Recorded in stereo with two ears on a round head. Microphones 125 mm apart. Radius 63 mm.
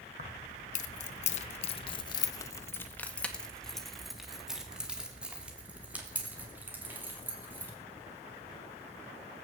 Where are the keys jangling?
55° left (ahead or behind), 1.4 m; by 7.7 s 15° right (ahead or behind), 4.5 m.